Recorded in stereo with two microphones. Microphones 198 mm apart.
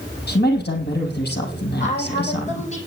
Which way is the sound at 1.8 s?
35° left (ahead or behind).